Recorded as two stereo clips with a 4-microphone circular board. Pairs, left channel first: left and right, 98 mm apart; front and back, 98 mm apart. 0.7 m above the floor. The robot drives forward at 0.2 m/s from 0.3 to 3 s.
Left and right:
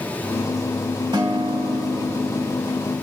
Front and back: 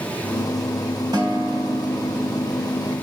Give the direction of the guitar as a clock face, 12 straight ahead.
4 o'clock.